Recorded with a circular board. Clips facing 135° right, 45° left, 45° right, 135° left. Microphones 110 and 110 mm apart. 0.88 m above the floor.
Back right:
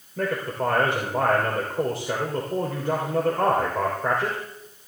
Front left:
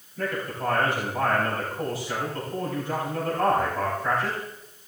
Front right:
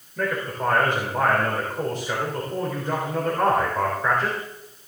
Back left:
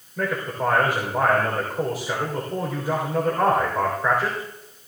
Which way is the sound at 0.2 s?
145° right.